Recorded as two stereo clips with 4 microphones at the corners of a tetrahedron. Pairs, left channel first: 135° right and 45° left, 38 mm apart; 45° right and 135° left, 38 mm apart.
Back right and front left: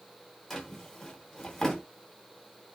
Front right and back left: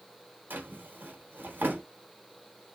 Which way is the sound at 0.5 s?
145° left.